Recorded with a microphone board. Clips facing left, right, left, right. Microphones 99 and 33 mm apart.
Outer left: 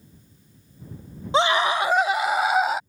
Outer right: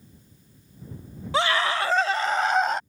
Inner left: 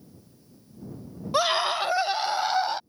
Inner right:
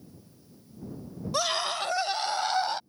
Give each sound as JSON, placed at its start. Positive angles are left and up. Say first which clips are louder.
{"t": 1.3, "sound": "a scream", "louder": "outer left 3 dB, inner left 5 dB", "side_deg": 25}